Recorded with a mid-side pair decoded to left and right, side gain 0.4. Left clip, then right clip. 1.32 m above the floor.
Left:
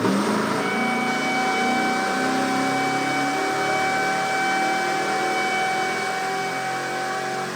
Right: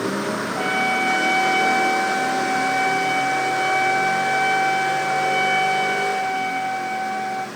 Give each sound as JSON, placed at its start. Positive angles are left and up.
{"t": 0.6, "sound": "a trumpet", "azimuth_deg": -50, "distance_m": 2.0}